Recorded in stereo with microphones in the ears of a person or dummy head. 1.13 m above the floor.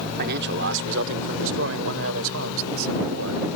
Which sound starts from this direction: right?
A man speaking, at 0.2 s.